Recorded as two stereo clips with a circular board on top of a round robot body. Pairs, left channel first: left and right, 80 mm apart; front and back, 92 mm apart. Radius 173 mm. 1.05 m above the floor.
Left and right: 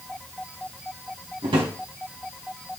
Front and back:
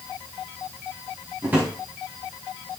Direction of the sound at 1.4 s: 105° right.